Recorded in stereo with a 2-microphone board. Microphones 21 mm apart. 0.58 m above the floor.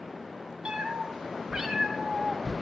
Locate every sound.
0.7 s a cat meowing: 65° right (ahead or behind), 0.9 m; by 2.5 s 35° right (ahead or behind), 1.6 m